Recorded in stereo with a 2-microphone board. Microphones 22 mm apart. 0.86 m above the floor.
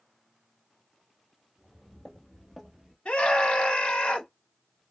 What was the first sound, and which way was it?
Footsteps, 10° left (ahead or behind).